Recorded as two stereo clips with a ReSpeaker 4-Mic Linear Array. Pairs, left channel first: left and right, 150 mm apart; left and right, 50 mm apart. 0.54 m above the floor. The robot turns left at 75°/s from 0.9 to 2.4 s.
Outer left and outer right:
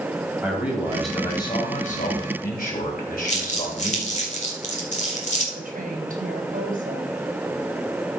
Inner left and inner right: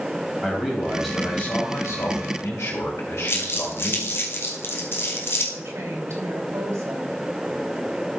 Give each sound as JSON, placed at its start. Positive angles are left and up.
{"t": 0.4, "sound": "a man speaking", "azimuth_deg": -170, "distance_m": 3.5}
{"t": 3.3, "sound": "crumpling", "side_deg": 50, "distance_m": 2.0}
{"t": 5.5, "sound": "a woman speaking", "side_deg": -70, "distance_m": 3.0}